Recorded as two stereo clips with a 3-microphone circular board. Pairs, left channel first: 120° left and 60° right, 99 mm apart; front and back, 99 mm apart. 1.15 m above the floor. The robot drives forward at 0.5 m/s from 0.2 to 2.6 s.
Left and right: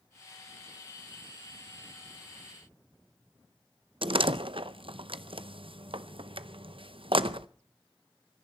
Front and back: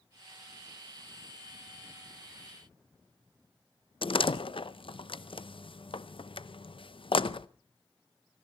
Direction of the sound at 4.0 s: 30° right.